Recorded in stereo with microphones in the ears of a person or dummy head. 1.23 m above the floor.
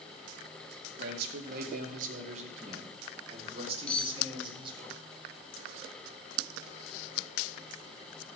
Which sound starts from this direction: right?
A man speaking, at 1.0 s.